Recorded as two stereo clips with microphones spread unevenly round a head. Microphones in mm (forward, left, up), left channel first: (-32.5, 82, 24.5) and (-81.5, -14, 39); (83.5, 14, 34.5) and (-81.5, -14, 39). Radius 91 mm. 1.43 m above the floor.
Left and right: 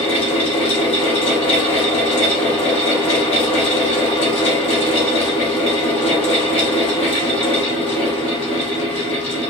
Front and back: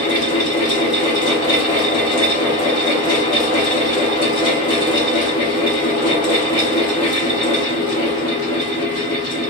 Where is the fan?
70° left, 1.2 m.